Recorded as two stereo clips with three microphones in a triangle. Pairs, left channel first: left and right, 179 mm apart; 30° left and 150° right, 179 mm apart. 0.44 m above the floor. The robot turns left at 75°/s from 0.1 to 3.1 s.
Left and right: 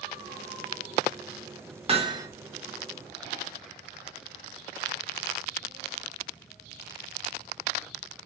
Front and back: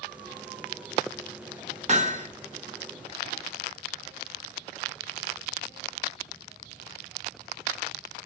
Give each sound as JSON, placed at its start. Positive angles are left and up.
{"t": 1.9, "sound": "hammering", "azimuth_deg": -125, "distance_m": 0.5}